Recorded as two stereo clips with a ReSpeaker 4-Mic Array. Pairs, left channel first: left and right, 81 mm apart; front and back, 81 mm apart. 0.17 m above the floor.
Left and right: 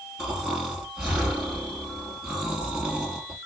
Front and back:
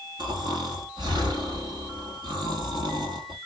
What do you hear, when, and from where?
0.2 s snoring: 170° right, 2.5 m